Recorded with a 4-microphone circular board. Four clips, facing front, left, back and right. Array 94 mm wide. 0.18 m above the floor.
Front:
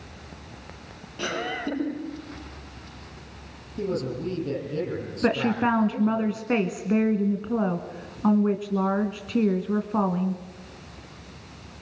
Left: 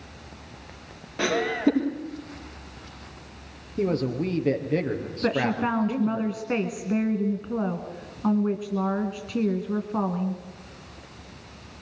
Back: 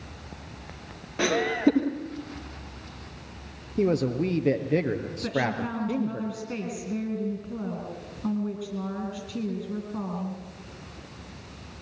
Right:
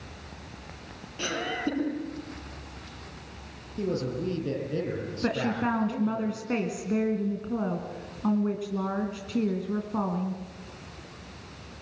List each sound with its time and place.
1.2 s laughter: 140° left, 5 m
3.8 s a man speaking: 150° left, 4.5 m
5.2 s a woman speaking: 15° left, 2 m